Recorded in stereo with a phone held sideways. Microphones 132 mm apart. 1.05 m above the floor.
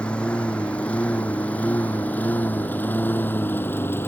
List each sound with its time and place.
0.0 s a lawn mower: 10° left (ahead or behind); by 4.1 s 15° left (ahead or behind)